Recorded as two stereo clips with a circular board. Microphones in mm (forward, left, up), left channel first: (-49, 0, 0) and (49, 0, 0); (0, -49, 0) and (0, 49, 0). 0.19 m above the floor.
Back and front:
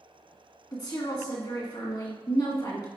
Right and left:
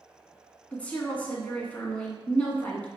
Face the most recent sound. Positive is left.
turn(degrees=-160)